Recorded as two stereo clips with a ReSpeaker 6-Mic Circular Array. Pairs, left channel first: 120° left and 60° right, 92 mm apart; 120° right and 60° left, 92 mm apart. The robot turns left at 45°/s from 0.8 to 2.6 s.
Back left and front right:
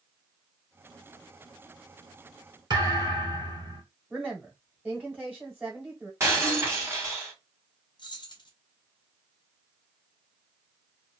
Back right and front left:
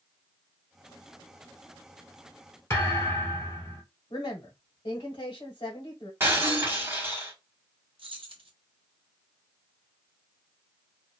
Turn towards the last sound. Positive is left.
turn(degrees=80)